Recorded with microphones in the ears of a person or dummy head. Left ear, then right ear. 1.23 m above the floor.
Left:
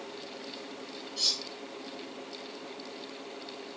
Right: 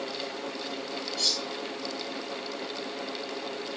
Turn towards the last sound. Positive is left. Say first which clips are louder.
# right 2 dB
turn(degrees=60)  # may be behind; listen again after turning